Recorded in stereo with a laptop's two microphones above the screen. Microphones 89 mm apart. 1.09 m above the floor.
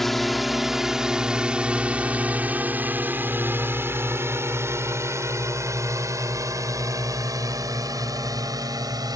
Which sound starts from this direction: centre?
A drone, at 0.0 s.